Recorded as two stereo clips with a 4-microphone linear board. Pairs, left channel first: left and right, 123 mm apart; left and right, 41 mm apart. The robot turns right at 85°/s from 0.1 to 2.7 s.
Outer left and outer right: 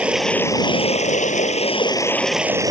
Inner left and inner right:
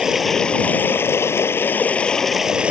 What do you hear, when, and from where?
0.0 s running water: 10° right; by 2.7 s 150° right